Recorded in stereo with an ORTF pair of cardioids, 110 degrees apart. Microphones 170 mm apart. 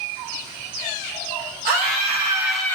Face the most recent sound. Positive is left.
turn(degrees=15)